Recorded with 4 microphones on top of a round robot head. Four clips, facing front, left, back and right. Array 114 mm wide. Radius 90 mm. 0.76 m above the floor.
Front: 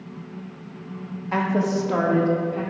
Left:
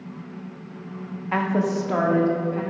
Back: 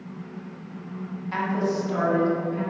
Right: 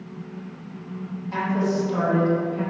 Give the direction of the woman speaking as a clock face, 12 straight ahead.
10 o'clock.